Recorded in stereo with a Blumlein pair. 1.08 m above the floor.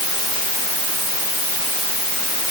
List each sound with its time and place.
Only background noise.